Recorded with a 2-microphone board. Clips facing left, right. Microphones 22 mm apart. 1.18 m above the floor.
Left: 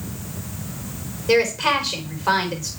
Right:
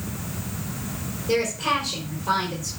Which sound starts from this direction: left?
A woman speaking, at 1.3 s.